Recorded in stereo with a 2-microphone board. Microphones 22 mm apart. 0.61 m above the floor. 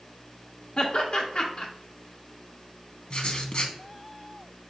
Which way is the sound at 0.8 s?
45° left (ahead or behind).